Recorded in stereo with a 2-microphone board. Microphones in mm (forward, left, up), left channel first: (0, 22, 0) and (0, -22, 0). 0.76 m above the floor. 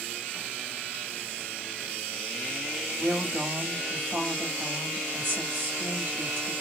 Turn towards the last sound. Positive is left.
turn(degrees=-50)  # may be behind; listen again after turning